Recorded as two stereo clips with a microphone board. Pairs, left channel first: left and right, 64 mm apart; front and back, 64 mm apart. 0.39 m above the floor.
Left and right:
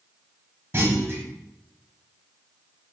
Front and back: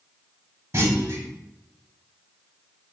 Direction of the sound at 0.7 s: 140° right.